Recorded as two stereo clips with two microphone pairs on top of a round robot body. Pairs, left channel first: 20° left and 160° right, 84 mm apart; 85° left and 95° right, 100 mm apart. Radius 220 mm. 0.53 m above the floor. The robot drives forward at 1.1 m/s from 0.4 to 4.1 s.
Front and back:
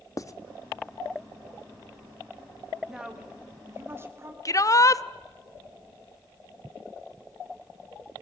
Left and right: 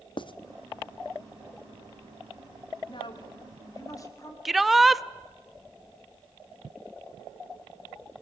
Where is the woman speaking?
115° left, 2 m; by 4.3 s 140° left, 3 m.